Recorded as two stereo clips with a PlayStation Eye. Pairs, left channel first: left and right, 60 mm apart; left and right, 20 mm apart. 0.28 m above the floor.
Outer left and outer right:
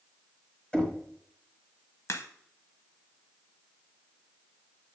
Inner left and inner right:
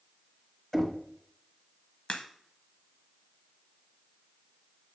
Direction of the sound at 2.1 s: 55° left (ahead or behind).